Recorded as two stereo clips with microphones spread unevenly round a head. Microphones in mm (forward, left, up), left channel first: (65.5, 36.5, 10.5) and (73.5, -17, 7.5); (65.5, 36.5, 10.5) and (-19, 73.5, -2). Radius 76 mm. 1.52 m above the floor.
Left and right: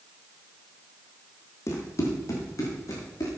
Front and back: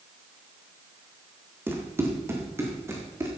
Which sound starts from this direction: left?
Running footsteps, at 1.7 s.